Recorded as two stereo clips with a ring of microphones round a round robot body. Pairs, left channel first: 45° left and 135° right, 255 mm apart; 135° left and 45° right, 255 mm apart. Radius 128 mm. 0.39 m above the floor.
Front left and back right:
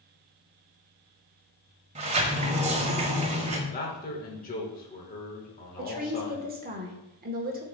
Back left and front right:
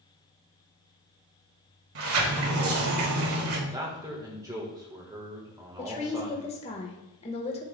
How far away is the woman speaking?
About 1.2 m.